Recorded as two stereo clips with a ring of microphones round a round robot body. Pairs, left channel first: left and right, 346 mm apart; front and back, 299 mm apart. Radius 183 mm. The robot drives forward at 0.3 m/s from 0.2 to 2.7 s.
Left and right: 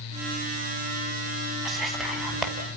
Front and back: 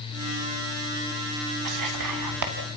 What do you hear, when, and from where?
1.6 s whispering: straight behind, 3.5 m